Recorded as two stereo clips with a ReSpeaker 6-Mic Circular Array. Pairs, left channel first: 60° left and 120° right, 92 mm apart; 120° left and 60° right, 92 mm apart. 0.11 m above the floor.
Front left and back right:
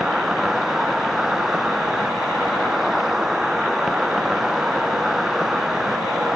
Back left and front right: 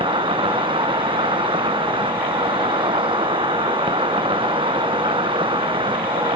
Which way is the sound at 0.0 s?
35° right.